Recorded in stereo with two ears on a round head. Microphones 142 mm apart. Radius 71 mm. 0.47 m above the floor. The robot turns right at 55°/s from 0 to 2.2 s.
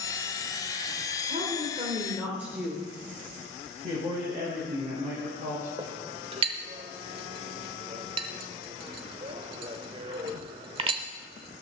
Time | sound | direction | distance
1.2 | a woman speaking | 65° right | 2.0 m
3.8 | a man speaking | 30° right (ahead or behind) | 6.5 m
5.8 | a clink | 35° right (ahead or behind) | 1.0 m